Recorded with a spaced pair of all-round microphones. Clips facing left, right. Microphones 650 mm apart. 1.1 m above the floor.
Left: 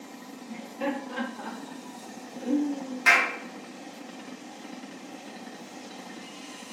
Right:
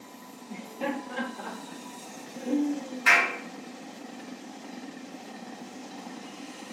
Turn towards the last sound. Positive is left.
turn(degrees=65)  # may be behind; listen again after turning